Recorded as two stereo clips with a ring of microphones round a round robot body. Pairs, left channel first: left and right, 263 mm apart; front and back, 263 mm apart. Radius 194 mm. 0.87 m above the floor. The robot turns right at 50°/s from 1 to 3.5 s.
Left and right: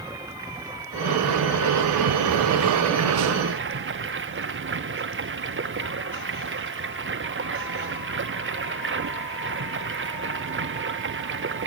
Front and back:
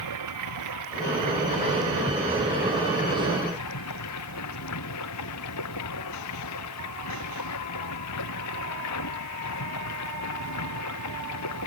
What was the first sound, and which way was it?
Running water, 170° right.